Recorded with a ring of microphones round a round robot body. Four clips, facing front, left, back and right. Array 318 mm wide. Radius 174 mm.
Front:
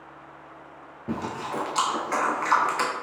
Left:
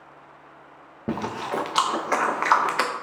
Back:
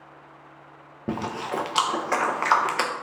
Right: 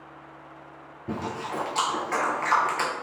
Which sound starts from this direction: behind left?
Chewing, at 1.1 s.